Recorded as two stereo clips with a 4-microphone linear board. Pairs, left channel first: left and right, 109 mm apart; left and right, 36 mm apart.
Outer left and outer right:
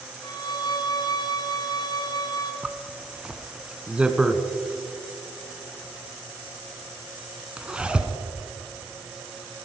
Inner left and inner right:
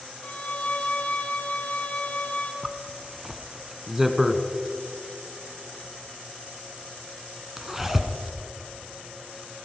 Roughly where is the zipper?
Centre.